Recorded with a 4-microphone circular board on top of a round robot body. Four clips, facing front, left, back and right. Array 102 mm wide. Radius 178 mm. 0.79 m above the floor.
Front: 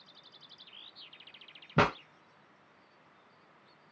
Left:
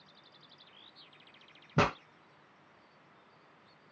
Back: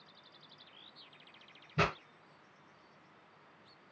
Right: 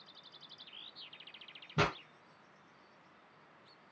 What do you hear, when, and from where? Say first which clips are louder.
1.8 s a pop: left 4 dB, front 6 dB; 20° left, 0.7 m